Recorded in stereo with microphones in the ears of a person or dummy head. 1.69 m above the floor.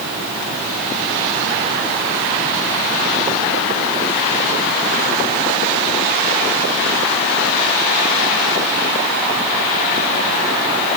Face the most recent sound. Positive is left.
No sound to turn to.